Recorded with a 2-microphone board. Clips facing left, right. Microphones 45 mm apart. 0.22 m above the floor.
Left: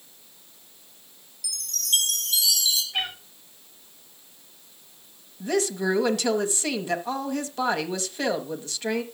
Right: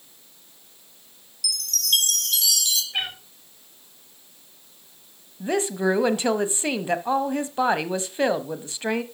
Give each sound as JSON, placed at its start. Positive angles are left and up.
{"t": 1.4, "sound": "a chime", "side_deg": -65, "distance_m": 2.0}
{"t": 2.9, "sound": "a cat meowing", "side_deg": -10, "distance_m": 7.5}
{"t": 5.4, "sound": "a woman speaking", "side_deg": -25, "distance_m": 1.0}